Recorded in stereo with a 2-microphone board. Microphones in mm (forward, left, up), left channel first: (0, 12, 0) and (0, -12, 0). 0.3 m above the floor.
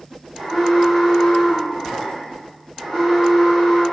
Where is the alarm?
20° left (ahead or behind), 2 m.